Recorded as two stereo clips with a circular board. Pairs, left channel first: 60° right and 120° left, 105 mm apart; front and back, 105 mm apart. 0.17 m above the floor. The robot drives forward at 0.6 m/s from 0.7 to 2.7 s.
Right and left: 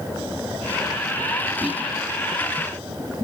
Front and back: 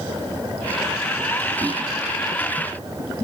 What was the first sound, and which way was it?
Whispering, 165° right.